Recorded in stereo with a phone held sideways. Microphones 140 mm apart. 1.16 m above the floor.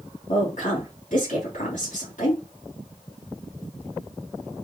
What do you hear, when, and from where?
0.3 s a woman speaking: 70° left (ahead or behind), 2.5 m